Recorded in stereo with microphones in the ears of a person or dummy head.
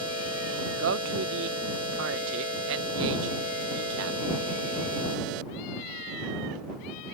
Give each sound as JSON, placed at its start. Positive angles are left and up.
{"t": 0.8, "sound": "a man speaking", "side_deg": -75}